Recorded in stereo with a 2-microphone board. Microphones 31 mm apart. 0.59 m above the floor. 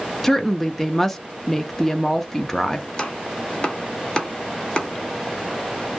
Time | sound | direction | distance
0.2 | a woman speaking | 10° left (ahead or behind) | 0.6 m
2.9 | chopping | 30° left (ahead or behind) | 0.9 m